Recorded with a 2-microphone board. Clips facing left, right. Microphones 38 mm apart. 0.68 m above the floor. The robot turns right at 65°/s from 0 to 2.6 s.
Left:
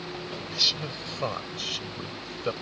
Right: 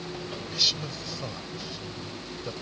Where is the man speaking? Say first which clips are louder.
Left 1 dB; straight ahead; by 2.5 s 130° left.